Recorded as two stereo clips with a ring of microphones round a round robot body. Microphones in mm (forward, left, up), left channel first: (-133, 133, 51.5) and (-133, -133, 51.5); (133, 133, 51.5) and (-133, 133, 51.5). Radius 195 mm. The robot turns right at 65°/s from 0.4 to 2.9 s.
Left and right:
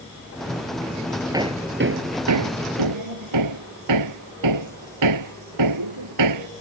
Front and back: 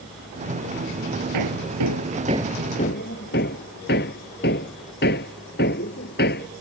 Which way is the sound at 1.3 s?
165° right.